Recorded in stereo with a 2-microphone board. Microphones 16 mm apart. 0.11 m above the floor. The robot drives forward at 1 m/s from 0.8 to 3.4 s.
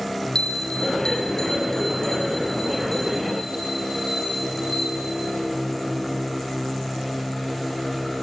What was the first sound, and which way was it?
A bell, 60° left (ahead or behind).